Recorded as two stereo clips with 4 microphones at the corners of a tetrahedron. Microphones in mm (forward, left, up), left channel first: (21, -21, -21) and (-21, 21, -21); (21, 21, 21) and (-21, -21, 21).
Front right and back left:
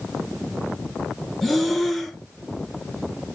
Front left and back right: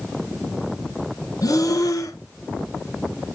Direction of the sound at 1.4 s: 45° left.